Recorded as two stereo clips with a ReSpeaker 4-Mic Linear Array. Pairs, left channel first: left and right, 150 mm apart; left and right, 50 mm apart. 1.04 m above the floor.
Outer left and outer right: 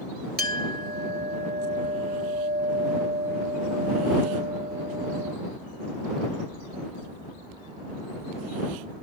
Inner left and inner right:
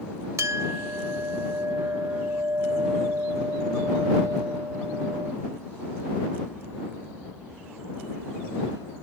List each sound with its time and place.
0.4 s a clink: 80° right